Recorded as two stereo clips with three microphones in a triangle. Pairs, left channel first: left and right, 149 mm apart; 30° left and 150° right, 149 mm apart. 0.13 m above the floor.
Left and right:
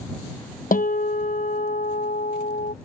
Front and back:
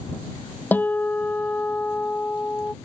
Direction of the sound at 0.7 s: 110° left.